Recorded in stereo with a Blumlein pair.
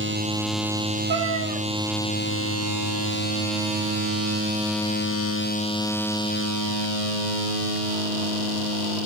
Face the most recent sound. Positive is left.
turn(degrees=-65)